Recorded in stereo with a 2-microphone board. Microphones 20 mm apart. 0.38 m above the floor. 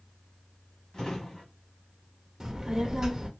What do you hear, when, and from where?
0.9 s a drawer: 35° left (ahead or behind), 1.8 m
2.4 s a child speaking: 20° right (ahead or behind), 0.5 m